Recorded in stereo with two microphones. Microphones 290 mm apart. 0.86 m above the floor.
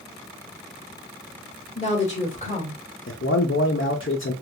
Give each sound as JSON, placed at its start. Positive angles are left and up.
{"t": 1.8, "sound": "a woman speaking", "side_deg": 20, "distance_m": 2.0}
{"t": 3.1, "sound": "a man speaking", "side_deg": 45, "distance_m": 0.7}